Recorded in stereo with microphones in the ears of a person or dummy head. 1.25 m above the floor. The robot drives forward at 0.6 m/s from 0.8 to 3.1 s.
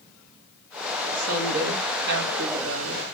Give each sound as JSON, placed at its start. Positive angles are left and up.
{"t": 1.1, "sound": "a woman speaking", "side_deg": -45, "distance_m": 2.0}